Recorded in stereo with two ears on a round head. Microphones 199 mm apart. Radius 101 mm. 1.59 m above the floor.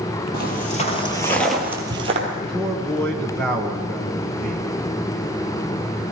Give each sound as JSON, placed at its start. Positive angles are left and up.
{"t": 0.3, "sound": "footsteps", "side_deg": 45, "distance_m": 2.5}
{"t": 2.4, "sound": "a man speaking", "side_deg": 5, "distance_m": 1.3}